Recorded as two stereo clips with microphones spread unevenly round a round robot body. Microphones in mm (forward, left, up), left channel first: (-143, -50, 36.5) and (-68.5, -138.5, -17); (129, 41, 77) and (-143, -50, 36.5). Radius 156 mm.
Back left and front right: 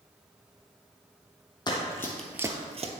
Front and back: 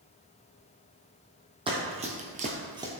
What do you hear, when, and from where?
1.7 s running footsteps: 125° left, 1.4 m; by 2.9 s 80° right, 1.0 m